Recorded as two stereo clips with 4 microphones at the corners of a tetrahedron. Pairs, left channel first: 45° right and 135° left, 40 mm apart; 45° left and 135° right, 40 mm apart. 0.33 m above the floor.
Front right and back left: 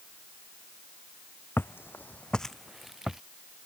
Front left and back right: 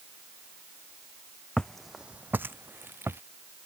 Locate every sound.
1.6 s footsteps: 20° right; by 3.2 s 145° right